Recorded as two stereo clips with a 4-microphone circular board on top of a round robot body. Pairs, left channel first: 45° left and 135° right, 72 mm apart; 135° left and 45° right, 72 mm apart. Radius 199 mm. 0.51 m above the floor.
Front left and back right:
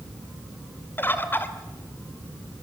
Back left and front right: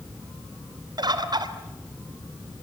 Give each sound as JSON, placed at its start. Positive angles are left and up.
{"t": 1.0, "sound": "a bird", "azimuth_deg": -20, "distance_m": 2.5}